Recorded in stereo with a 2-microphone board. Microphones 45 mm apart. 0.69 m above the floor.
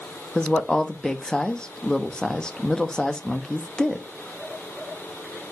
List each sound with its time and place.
0.3 s a woman speaking: 20° left (ahead or behind), 0.9 m